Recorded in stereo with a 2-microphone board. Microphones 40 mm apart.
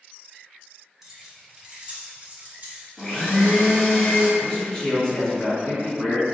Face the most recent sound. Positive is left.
turn(degrees=10)  # may be behind; listen again after turning